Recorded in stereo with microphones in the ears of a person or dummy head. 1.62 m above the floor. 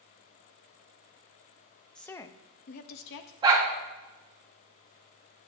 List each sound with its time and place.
1.9 s a woman speaking: 5° left (ahead or behind), 0.5 m; by 3.3 s 60° left (ahead or behind), 0.8 m
3.4 s a dog barking: 20° right (ahead or behind), 1.8 m